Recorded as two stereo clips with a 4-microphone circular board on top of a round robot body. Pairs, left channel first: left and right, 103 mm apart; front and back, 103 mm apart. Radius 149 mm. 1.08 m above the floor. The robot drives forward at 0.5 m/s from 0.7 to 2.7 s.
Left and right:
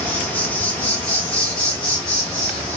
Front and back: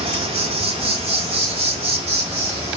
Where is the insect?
165° left, 1.3 m; by 2.8 s 170° left, 2.5 m.